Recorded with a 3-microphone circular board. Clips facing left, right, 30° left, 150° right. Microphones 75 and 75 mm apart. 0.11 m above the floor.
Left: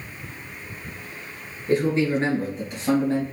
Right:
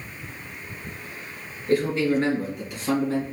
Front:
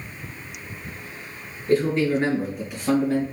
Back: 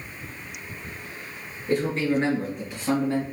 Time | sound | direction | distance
1.7 | a man speaking | 125° left | 1.8 m